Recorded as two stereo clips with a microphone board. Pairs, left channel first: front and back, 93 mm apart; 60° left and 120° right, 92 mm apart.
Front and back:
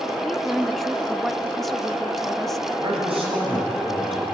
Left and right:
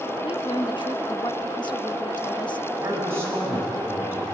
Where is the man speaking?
175° left, 7.5 m.